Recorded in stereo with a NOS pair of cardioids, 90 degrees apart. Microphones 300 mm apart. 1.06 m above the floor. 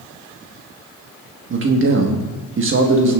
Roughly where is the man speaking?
Ahead right.